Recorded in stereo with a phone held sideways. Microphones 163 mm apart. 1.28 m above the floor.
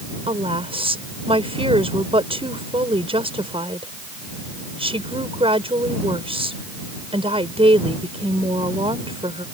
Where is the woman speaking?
35° right (ahead or behind).